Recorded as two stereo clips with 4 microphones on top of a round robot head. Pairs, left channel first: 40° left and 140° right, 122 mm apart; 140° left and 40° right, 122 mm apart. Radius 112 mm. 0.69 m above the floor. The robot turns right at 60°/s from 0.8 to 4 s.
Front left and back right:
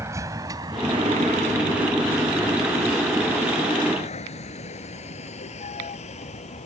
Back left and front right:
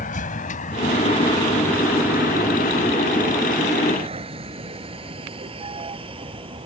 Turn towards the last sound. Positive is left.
turn(degrees=5)